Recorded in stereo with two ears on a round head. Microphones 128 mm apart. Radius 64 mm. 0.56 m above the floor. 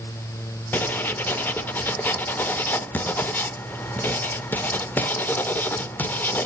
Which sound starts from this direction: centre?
Writing, at 0.7 s.